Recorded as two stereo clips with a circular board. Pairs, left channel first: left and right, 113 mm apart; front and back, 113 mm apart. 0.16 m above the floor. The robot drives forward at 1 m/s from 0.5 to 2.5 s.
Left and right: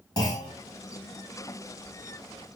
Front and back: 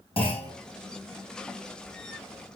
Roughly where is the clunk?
Ahead left.